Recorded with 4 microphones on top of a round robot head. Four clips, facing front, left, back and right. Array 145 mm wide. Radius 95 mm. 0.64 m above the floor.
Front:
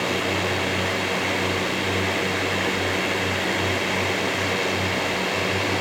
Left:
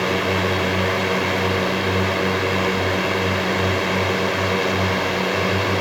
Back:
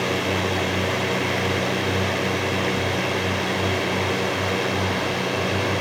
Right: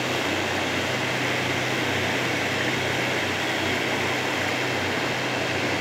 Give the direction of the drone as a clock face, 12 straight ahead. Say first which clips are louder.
Left 6 dB, back 1 dB; 9 o'clock.